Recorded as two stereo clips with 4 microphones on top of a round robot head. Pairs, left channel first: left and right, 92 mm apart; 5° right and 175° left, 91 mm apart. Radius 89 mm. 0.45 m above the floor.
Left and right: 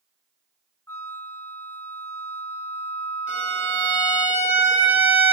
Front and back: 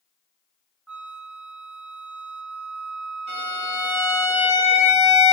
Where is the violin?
160° right, 4.5 m.